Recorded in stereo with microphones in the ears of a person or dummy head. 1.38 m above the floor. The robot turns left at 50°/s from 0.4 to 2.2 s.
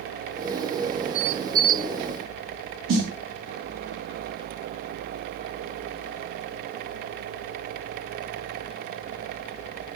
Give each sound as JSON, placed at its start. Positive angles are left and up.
{"t": 2.9, "sound": "a snare drum", "side_deg": -65, "distance_m": 2.5}